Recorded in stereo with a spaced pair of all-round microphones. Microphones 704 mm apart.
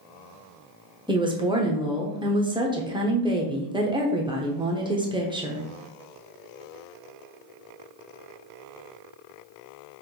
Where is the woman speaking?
5° right (ahead or behind), 0.8 m.